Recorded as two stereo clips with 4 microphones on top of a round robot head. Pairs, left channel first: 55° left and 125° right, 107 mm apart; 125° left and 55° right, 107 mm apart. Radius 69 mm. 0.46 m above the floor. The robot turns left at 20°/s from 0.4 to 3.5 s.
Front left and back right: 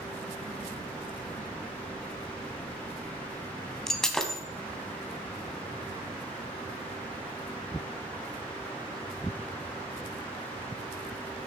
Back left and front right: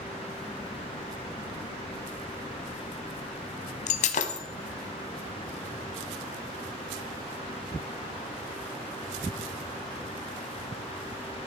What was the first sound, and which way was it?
Breaking glass, 140° left.